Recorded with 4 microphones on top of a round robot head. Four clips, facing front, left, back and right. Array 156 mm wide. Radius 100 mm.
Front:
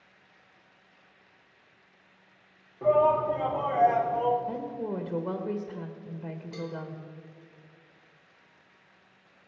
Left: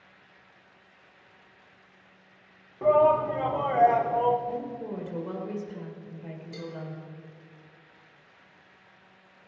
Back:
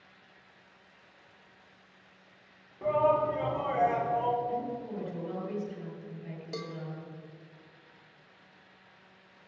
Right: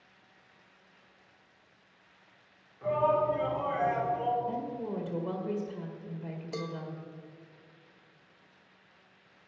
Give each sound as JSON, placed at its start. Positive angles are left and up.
{"t": 2.8, "sound": "a shout", "azimuth_deg": 80, "distance_m": 3.0}
{"t": 4.5, "sound": "a woman speaking", "azimuth_deg": -15, "distance_m": 1.7}
{"t": 6.5, "sound": "a cowbell", "azimuth_deg": -130, "distance_m": 0.8}